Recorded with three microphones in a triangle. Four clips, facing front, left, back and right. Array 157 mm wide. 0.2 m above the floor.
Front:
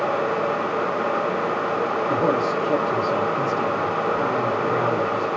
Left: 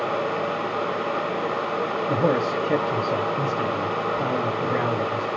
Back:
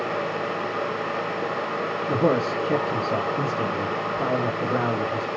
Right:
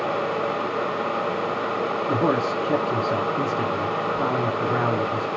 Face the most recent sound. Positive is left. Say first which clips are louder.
# even, back 1 dB
turn(degrees=-80)